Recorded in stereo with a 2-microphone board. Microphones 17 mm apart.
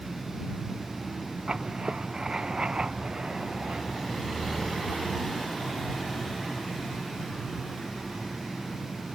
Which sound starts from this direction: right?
Writing, at 1.5 s.